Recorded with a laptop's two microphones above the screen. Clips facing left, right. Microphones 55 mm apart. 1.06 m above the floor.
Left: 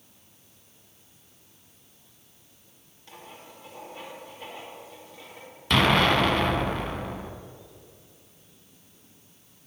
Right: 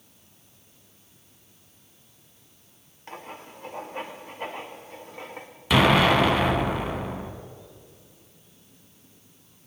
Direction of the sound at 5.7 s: 5° right (ahead or behind).